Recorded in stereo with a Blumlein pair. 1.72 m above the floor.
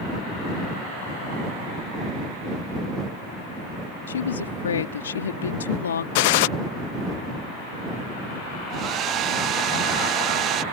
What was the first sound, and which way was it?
A woman speaking, 65° left.